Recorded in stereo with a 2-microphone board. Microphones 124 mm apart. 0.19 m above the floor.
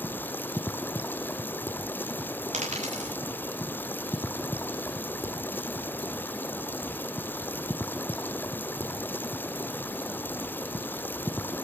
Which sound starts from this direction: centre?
Running water, at 0.0 s.